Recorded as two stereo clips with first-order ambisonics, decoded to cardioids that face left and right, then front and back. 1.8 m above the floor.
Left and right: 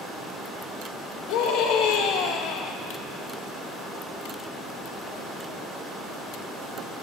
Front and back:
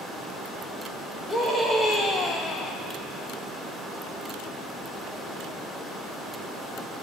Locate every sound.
1.3 s a scream: 75° left, 3 m; by 2.8 s 50° left, 1.1 m